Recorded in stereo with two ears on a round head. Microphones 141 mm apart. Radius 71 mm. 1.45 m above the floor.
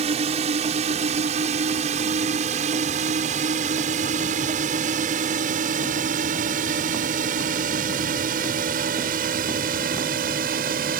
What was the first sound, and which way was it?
A drone, 40° right (ahead or behind).